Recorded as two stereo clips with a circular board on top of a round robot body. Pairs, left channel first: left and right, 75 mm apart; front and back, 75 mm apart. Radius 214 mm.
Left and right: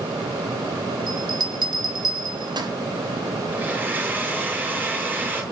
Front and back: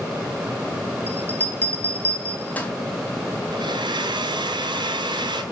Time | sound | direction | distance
1.1 | a bell | 70° right | 3 m
3.5 | a blender | 160° right | 4 m